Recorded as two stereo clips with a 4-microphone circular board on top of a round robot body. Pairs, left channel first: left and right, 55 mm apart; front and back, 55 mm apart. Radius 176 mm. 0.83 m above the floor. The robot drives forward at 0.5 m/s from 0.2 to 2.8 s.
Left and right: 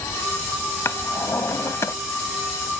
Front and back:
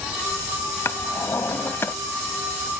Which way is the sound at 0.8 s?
45° left.